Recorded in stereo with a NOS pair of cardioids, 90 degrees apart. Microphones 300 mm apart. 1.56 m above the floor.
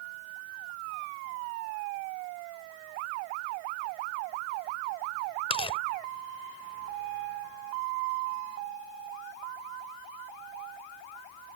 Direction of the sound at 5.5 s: 20° left.